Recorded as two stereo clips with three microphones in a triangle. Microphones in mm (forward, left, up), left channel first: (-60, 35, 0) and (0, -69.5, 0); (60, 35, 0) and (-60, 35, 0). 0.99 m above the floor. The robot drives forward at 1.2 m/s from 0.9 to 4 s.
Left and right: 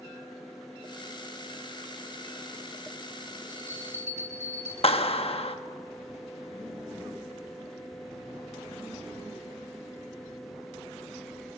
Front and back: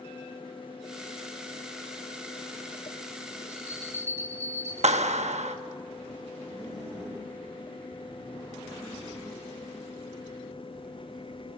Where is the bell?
105° left, 5 m; by 4.7 s 110° left, 5.5 m.